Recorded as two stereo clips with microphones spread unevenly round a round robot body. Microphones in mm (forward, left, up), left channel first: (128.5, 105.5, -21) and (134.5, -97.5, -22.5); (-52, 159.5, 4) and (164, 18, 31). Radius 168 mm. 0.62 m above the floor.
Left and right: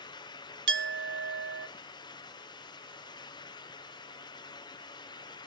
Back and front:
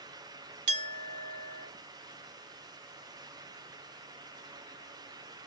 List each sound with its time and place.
0.7 s a clink: 70° right, 1.7 m